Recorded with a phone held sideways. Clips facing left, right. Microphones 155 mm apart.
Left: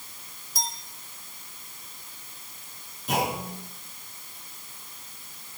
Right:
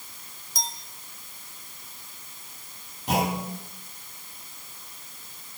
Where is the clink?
5° left (ahead or behind), 2.5 m.